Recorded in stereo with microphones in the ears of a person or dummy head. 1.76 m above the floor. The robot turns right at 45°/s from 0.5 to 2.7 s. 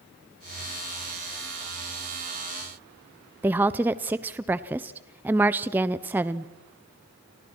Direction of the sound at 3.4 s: 10° right (ahead or behind).